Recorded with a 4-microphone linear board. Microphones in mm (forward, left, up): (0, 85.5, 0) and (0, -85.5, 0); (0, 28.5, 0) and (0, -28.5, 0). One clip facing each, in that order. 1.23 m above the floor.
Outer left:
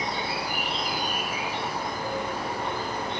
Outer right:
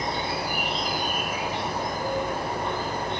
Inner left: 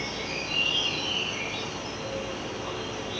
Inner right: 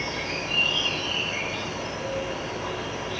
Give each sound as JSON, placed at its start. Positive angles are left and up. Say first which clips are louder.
{"t": 0.0, "sound": "an insect", "louder": "outer right 2 dB, inner right 3 dB", "side_deg": -45, "distance_m": 1.9}